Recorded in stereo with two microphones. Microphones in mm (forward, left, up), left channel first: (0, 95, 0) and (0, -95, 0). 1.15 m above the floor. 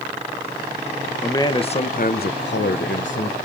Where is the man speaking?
15° left (ahead or behind), 0.7 m; by 3.4 s 80° left, 1.0 m.